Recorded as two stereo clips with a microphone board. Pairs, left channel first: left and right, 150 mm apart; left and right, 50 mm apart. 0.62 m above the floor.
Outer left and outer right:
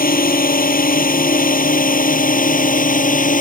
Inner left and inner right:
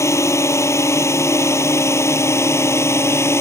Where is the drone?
65° left (ahead or behind); by 3.4 s 60° left (ahead or behind).